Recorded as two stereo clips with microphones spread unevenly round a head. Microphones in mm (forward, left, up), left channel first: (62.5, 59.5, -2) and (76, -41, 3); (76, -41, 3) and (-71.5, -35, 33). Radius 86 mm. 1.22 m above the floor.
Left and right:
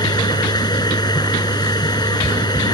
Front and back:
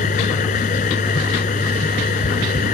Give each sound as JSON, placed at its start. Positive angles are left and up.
{"t": 0.0, "sound": "a machine running", "azimuth_deg": 50}